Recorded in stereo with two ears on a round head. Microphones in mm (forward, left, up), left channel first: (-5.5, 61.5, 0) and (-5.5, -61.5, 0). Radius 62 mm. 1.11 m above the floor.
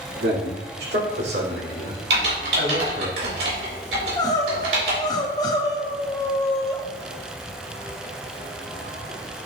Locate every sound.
0.2 s a man speaking: 90° right, 2 m; by 3.1 s 80° right, 3.5 m
2.1 s typing on a keyboard: 80° right, 3 m
4.0 s crying: 30° left (ahead or behind), 0.9 m